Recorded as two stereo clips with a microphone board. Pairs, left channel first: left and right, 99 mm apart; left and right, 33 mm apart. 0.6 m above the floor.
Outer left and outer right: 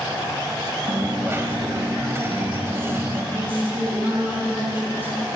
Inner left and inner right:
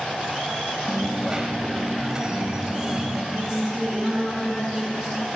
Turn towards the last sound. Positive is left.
turn(degrees=-20)  # may be behind; listen again after turning